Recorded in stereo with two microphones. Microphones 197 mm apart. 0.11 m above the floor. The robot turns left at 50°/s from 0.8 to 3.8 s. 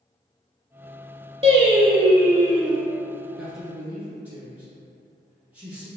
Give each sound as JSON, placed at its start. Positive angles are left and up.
{"t": 1.4, "sound": "singing", "azimuth_deg": -100, "distance_m": 0.6}
{"t": 3.4, "sound": "a man speaking", "side_deg": 5, "distance_m": 1.2}